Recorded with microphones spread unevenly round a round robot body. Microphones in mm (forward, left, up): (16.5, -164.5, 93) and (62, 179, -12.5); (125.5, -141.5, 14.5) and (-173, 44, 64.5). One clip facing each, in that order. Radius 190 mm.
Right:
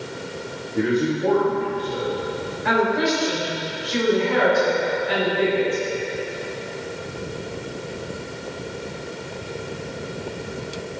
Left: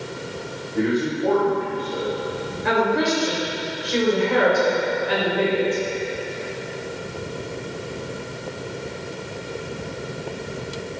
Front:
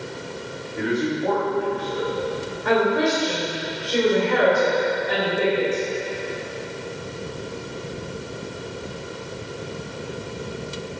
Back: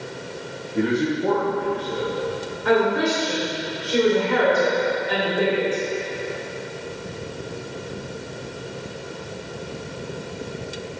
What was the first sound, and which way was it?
A man speaking, 170° left.